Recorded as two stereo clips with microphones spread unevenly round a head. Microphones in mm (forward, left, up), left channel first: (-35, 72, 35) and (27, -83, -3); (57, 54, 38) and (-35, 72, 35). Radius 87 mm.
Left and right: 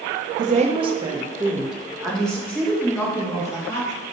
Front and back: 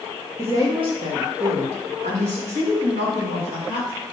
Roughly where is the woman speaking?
Behind right.